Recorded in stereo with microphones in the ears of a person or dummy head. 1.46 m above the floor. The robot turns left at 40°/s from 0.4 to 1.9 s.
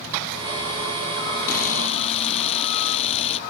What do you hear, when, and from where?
1.5 s a camera shutter: 50° left (ahead or behind); by 3.4 s 35° left (ahead or behind)